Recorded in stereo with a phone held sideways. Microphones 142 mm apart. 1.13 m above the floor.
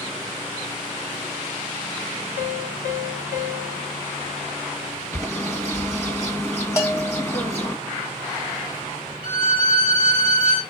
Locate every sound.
2.4 s a piano: 65° left (ahead or behind), 4.5 m
5.1 s a bird: 20° left (ahead or behind), 1.8 m
6.8 s a bell: 20° left (ahead or behind), 1.5 m
9.2 s a violin: 35° left (ahead or behind), 3 m